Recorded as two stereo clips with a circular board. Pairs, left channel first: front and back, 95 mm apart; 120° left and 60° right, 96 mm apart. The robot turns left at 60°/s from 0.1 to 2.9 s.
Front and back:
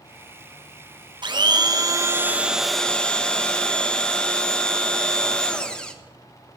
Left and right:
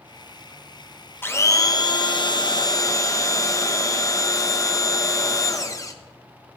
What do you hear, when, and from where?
1.2 s a blender: straight behind, 1.0 m; by 5.9 s 80° left, 1.0 m